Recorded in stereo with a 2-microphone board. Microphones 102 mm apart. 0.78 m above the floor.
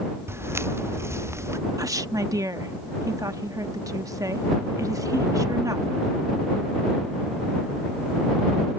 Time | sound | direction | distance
0.3 | footsteps | 25° right (ahead or behind) | ?
1.8 | a woman speaking | 35° right (ahead or behind) | ?